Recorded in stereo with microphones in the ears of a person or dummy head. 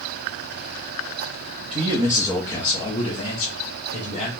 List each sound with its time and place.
1.7 s a man speaking: 25° right (ahead or behind), 0.6 m; by 4.3 s 40° left (ahead or behind), 1.6 m